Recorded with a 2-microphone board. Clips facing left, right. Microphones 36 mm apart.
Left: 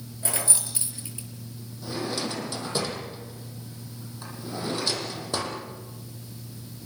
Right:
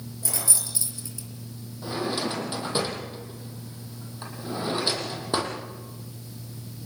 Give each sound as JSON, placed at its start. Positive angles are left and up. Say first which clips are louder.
{"t": 0.2, "sound": "keys jangling", "louder": "left 2 dB", "side_deg": 35, "distance_m": 4.0}
{"t": 1.8, "sound": "a drawer", "louder": "right 2 dB", "side_deg": -25, "distance_m": 5.0}